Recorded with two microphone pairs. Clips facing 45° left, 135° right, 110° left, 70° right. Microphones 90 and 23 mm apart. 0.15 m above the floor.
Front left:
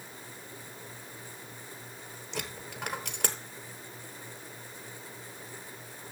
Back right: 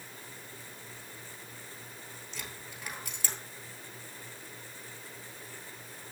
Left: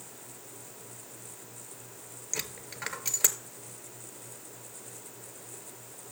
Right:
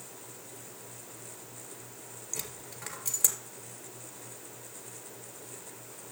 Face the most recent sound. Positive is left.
turn(degrees=55)